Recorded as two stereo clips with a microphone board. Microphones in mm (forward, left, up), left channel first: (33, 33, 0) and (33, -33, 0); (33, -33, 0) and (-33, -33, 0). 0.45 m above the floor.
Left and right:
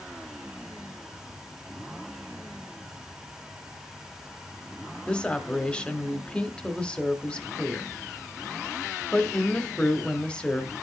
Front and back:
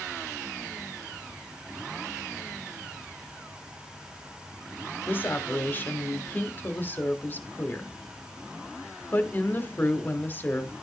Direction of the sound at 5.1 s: 25° left.